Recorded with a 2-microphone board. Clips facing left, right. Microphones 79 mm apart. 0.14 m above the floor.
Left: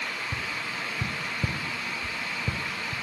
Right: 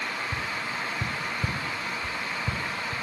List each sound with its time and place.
0.3 s tapping: 35° left (ahead or behind), 2.5 m